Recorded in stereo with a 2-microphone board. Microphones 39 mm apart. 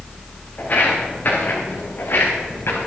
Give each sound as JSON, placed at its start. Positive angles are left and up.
{"t": 0.6, "sound": "footsteps", "side_deg": 40, "distance_m": 6.5}